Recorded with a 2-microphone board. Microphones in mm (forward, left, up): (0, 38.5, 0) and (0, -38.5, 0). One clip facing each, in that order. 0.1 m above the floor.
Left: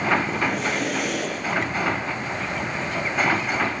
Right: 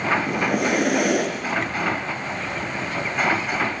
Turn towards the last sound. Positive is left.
turn(degrees=-65)  # may be behind; listen again after turning